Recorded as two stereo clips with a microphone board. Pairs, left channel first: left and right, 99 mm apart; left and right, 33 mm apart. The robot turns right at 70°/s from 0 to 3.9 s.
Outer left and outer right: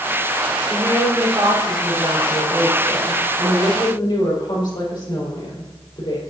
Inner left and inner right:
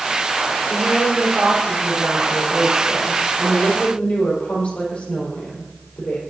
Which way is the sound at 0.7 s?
100° right.